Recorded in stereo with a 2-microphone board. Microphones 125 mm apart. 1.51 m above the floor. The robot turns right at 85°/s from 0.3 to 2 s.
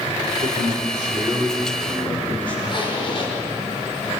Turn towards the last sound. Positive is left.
turn(degrees=40)  # may be behind; listen again after turning